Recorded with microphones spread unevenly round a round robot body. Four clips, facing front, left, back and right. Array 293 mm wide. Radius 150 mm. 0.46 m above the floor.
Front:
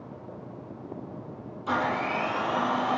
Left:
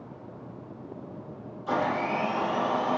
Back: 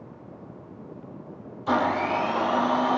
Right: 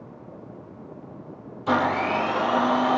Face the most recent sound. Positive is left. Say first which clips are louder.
# right 5 dB, back 4 dB
turn(degrees=-100)